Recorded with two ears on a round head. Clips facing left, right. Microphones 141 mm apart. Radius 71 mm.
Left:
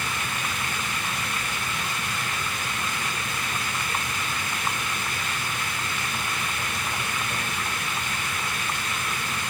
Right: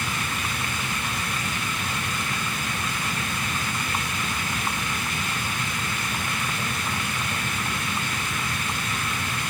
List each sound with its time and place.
Only background noise.